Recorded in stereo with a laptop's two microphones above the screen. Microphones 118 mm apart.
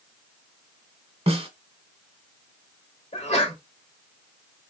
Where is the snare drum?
55° right (ahead or behind), 1.3 m.